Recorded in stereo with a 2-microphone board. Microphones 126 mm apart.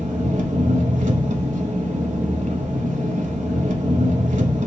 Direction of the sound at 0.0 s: 80° right.